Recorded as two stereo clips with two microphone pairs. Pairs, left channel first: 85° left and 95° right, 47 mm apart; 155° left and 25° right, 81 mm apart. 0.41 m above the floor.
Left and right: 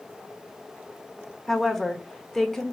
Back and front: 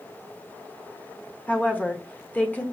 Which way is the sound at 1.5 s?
150° left.